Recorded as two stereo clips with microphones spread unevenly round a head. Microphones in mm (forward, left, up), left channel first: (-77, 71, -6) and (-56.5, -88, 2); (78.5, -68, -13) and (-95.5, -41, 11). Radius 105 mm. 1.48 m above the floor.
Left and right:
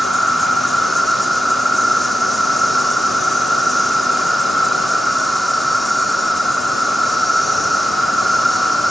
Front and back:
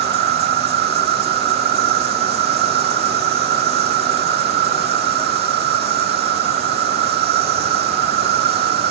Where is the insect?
170° right.